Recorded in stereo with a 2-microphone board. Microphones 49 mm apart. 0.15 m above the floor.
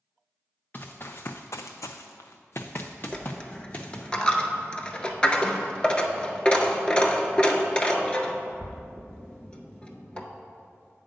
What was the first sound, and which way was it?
Running footsteps, 35° left (ahead or behind).